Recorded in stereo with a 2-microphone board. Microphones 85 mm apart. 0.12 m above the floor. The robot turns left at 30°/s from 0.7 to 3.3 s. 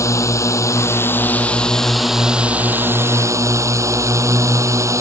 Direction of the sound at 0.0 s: 40° left.